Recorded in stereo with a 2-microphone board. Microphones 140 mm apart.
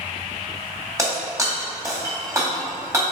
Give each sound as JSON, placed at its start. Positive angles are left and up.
{"t": 1.0, "sound": "breaking glass", "side_deg": -20, "distance_m": 2.0}